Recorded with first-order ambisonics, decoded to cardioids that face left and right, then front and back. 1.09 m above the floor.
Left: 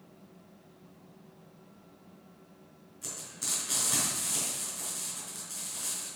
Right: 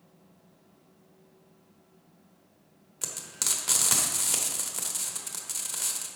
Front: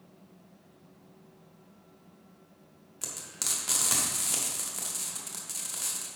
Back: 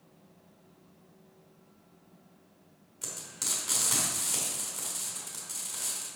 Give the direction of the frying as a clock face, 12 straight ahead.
2 o'clock.